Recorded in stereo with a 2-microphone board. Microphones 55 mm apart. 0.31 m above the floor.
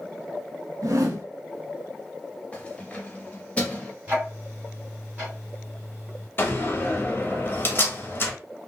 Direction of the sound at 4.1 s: 25° right (ahead or behind).